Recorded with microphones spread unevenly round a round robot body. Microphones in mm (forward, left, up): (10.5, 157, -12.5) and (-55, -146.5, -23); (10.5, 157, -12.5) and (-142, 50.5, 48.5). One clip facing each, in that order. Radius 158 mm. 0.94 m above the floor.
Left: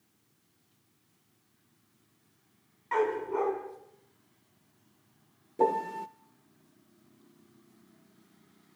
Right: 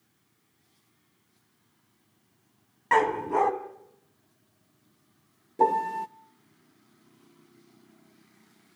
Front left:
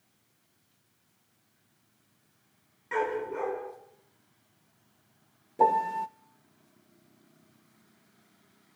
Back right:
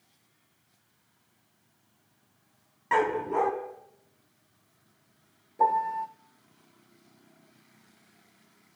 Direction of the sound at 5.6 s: 20° right.